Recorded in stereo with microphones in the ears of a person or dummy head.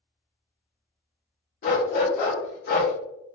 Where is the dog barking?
50° left (ahead or behind), 1.3 m.